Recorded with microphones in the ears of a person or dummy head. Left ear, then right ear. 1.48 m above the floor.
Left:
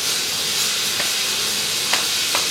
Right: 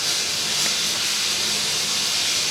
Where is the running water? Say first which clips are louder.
Left 1 dB; 20° left (ahead or behind), 0.9 m.